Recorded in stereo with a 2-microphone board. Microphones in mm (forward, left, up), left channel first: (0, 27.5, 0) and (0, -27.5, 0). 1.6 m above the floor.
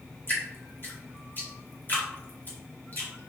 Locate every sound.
0.3 s dripping: 35° left (ahead or behind), 2 m